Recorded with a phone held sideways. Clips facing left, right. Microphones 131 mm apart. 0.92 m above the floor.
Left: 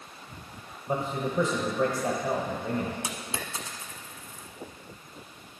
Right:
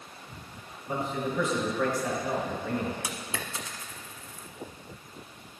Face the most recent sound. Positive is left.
turn(degrees=25)  # may be behind; listen again after turning